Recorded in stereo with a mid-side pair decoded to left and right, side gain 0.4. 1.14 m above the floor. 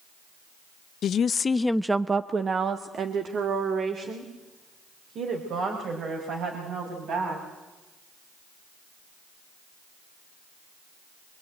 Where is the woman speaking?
70° left, 0.9 m; by 7.4 s 70° right, 6.5 m.